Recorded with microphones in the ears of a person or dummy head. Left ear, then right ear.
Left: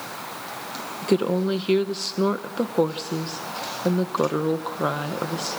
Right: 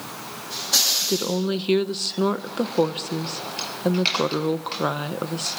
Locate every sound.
1.0 s a woman speaking: 5° right (ahead or behind), 0.8 m